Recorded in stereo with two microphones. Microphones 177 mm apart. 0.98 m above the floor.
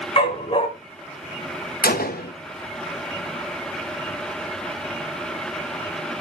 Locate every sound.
0.2 s a dog barking: 35° left (ahead or behind), 1.4 m
1.8 s a gunshot: 65° left (ahead or behind), 0.9 m